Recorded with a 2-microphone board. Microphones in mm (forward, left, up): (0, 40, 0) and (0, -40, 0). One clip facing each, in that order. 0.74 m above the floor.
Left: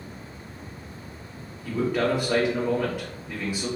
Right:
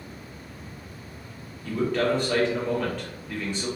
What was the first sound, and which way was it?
A man speaking, 10° left (ahead or behind).